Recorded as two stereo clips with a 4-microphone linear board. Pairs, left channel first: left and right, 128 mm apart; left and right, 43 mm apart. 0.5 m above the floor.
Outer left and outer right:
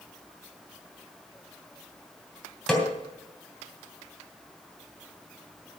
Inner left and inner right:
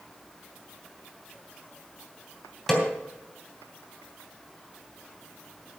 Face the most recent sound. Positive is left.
turn(degrees=5)  # may be behind; listen again after turning